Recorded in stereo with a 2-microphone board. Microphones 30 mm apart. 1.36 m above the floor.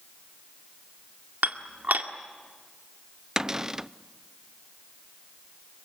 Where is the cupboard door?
20° right (ahead or behind), 0.5 m.